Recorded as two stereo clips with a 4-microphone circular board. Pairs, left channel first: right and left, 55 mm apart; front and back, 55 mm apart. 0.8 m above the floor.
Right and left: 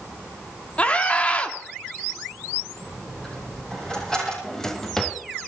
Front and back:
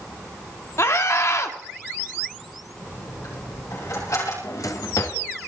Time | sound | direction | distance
0.8 | a scream | 25° right | 1.9 m
2.8 | a dropped coin | 15° right | 9 m
4.4 | a drawer | 10° right | 1.7 m